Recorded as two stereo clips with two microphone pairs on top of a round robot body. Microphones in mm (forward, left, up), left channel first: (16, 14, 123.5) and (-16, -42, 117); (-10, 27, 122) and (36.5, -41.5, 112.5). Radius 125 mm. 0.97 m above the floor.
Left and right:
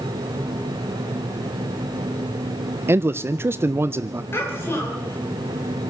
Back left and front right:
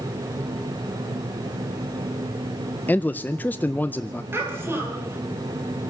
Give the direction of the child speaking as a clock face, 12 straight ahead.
12 o'clock.